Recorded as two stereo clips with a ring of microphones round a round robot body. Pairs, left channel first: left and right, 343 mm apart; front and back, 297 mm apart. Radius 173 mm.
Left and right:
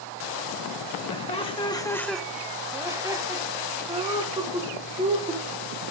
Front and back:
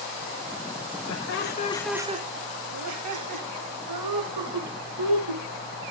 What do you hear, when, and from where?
1.1 s laughter: 20° left, 1.6 m; by 5.4 s 165° right, 5.5 m